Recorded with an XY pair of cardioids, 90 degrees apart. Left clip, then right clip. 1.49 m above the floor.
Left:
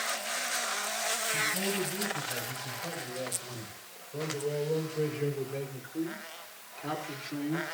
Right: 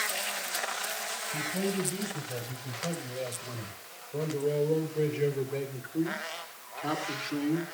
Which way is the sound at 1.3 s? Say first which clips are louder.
Left 2 dB; 40° right.